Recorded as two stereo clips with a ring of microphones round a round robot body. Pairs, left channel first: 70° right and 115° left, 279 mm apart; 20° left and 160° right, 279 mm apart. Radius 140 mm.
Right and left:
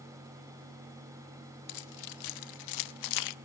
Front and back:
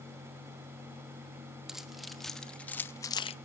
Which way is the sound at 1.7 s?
70° right.